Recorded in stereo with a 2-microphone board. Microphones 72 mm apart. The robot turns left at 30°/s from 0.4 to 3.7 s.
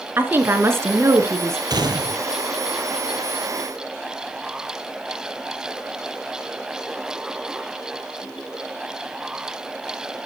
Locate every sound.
0.2 s a woman speaking: 55° right, 1.3 m; by 1.6 s 95° right, 1.3 m
1.7 s a gunshot: 65° right (ahead or behind), 1.1 m; by 2.2 s 70° right (ahead or behind), 1.1 m